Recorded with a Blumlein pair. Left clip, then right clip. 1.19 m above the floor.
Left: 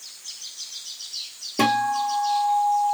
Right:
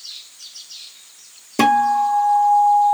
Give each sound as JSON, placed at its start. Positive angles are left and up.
{"t": 1.6, "sound": "a guitar", "azimuth_deg": -20, "distance_m": 0.8}